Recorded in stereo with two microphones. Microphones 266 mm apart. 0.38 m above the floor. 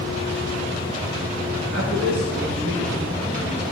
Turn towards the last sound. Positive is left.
turn(degrees=-40)  # may be behind; listen again after turning